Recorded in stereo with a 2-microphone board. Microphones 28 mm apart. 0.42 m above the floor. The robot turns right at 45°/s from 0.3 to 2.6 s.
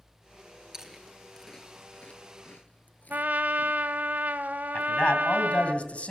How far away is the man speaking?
About 2.5 m.